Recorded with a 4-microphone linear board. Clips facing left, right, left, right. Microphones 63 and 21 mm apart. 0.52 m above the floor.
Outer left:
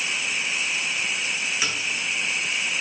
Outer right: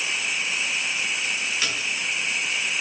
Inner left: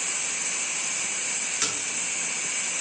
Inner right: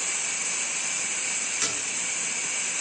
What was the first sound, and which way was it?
A splash, 15° left (ahead or behind).